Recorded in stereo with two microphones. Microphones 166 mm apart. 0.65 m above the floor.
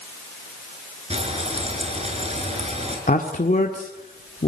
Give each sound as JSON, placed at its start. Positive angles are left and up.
{"t": 1.1, "sound": "frying", "side_deg": -40, "distance_m": 6.0}
{"t": 3.1, "sound": "a man speaking", "side_deg": 55, "distance_m": 1.7}